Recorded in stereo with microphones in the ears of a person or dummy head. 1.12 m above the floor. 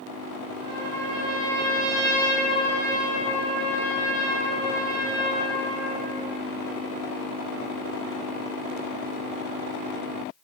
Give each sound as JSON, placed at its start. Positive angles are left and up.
{"t": 0.6, "sound": "a trumpet", "side_deg": -55, "distance_m": 0.9}